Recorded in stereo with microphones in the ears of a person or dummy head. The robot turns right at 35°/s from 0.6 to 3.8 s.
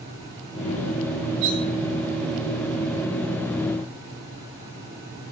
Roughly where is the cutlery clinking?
Right.